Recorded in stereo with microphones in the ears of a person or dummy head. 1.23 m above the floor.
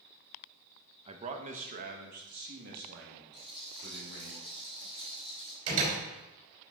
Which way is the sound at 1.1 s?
30° right (ahead or behind).